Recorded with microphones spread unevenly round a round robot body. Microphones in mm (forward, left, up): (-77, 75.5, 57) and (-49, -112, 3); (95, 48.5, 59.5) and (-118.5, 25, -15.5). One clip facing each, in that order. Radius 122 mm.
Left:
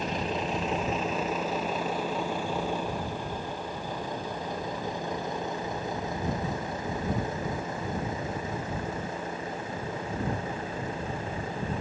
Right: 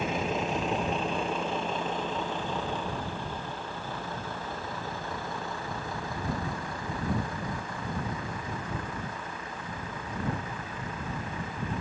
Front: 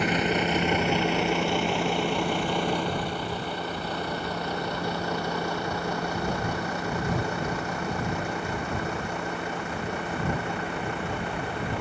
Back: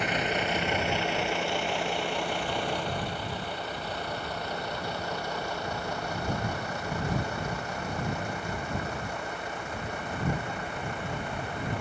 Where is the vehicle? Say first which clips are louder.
Right 1 dB, front 5 dB; 5° left; by 11.8 s 30° left.